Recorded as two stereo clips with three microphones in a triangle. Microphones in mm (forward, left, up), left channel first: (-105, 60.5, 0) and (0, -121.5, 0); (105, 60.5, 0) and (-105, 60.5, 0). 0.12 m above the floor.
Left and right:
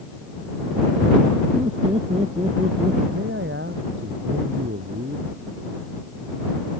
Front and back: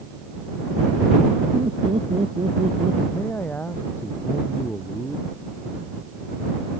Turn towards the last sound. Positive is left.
turn(degrees=-80)